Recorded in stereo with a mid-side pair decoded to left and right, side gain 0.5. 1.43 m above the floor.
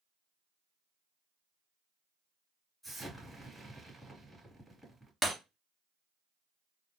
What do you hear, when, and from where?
2.8 s an explosion: straight ahead, 3 m
5.2 s breaking glass: 5° right, 1.6 m